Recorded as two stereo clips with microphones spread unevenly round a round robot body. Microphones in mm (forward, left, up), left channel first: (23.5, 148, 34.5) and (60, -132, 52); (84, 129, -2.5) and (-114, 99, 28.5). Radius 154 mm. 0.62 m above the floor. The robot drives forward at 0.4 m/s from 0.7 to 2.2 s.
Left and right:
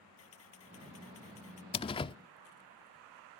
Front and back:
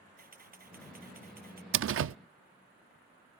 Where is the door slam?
165° left; by 2.1 s 170° left.